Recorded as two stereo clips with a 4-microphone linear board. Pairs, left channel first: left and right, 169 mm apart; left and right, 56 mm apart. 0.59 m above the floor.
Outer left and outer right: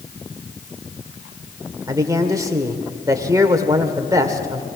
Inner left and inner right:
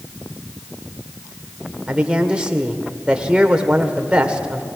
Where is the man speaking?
20° right (ahead or behind), 1.8 m.